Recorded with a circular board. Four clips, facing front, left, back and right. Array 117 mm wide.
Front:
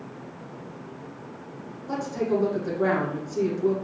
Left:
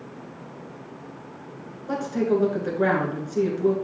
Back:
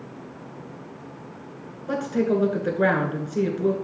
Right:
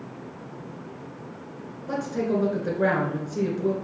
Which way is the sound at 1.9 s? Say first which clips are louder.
Left 3 dB, back 3 dB; 175° left.